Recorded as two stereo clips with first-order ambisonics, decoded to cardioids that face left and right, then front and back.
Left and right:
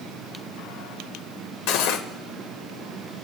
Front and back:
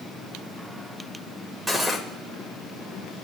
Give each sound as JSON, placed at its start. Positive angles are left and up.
{"t": 1.7, "sound": "cutlery clinking", "azimuth_deg": 100, "distance_m": 1.3}